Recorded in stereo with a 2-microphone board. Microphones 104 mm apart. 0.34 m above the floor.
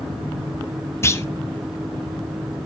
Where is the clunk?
25° left (ahead or behind), 0.6 m.